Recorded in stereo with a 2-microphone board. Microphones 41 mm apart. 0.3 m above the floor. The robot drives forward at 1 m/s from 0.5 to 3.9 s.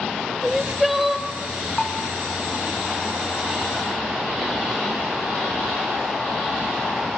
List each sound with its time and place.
0.4 s crying: 5° right (ahead or behind), 1.0 m
1.8 s a bell: 5° left (ahead or behind), 1.9 m